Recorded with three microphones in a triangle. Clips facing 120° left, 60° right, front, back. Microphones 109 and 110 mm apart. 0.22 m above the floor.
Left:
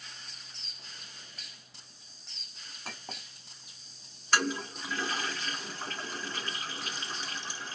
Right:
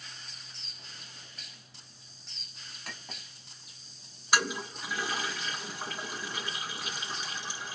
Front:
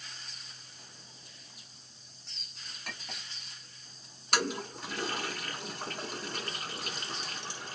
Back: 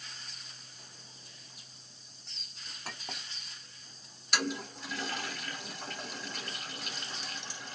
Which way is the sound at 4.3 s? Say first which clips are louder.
Even, front 2 dB; 15° left.